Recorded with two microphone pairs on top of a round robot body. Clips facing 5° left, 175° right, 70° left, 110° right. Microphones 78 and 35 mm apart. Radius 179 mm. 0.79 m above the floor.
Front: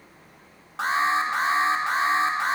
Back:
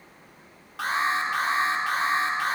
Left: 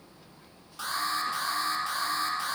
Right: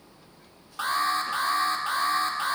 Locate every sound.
0.8 s an alarm: 60° right, 0.9 m